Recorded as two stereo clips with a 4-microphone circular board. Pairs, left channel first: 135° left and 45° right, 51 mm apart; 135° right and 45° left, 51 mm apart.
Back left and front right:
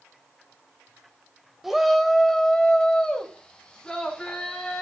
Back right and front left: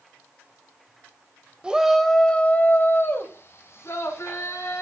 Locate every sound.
1.6 s a shout: 35° left, 0.9 m; by 4.8 s 150° right, 3 m